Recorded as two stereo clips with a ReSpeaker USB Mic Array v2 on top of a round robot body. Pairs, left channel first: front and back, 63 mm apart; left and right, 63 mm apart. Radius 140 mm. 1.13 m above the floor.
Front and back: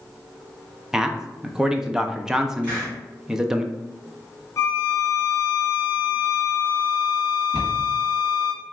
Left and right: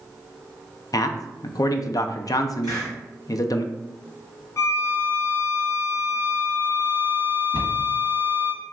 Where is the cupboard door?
75° left, 1.9 m.